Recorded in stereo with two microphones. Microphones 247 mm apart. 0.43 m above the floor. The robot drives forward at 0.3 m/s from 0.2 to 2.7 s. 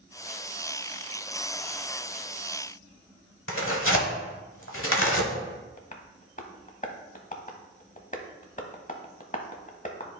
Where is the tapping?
35° left (ahead or behind), 0.8 m.